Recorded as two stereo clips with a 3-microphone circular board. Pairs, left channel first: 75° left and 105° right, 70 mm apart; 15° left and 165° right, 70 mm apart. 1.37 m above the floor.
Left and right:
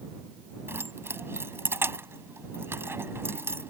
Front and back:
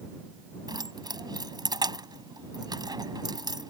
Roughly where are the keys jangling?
Behind.